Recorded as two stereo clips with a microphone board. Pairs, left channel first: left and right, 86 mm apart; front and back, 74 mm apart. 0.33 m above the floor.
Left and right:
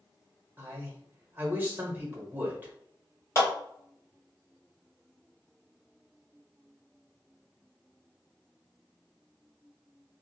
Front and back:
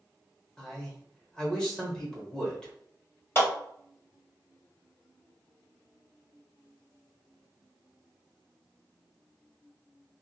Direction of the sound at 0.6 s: 65° right.